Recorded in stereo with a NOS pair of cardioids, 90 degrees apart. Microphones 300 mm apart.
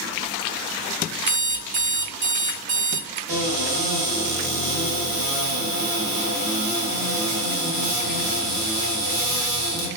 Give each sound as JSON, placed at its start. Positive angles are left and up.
{"t": 1.3, "sound": "an alarm clock", "azimuth_deg": -40, "distance_m": 0.6}
{"t": 3.3, "sound": "a cupboard door", "azimuth_deg": -50, "distance_m": 1.3}